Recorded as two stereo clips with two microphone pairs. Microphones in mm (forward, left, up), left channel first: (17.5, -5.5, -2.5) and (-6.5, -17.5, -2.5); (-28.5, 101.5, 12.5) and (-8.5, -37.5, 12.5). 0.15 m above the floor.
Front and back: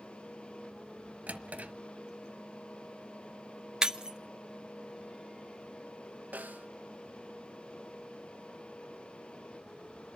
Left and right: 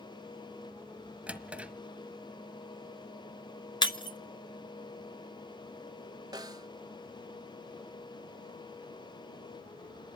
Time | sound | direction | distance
1.3 | a drawer | 165° right | 1.4 m
3.8 | breaking glass | 150° left | 0.7 m
6.3 | a snare drum | 150° right | 0.6 m